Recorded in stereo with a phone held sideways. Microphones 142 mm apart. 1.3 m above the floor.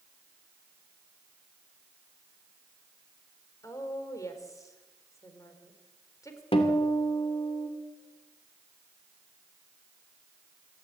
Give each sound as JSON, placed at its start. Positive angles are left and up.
{"t": 3.6, "sound": "a woman speaking", "side_deg": 25, "distance_m": 4.0}
{"t": 6.5, "sound": "a guitar", "side_deg": 45, "distance_m": 3.0}